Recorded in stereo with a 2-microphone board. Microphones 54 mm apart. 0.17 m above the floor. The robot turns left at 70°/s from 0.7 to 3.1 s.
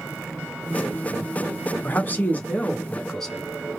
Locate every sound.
1.8 s a man speaking: 105° left, 1.3 m; by 3.4 s 15° left, 1.3 m